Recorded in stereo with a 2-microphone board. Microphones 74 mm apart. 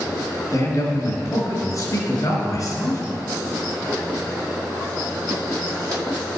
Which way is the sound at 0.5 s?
50° left (ahead or behind).